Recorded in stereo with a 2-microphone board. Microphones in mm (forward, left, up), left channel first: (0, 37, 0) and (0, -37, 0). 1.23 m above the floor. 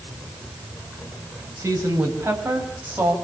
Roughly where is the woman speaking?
Right.